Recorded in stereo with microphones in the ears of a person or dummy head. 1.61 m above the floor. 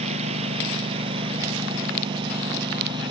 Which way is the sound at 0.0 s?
35° right (ahead or behind).